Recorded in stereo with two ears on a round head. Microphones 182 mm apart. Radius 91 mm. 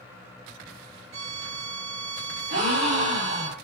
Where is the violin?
50° right (ahead or behind), 0.7 m.